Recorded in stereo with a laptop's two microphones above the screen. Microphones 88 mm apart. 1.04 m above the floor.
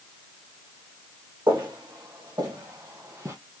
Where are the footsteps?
60° right (ahead or behind), 2.5 m; by 3.4 s 40° right (ahead or behind), 2 m.